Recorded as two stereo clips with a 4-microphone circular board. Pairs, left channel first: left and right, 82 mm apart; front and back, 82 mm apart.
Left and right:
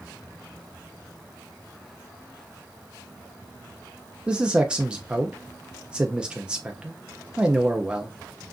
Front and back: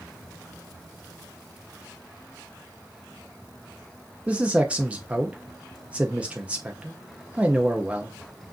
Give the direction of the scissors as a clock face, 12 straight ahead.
I don't hear scissors.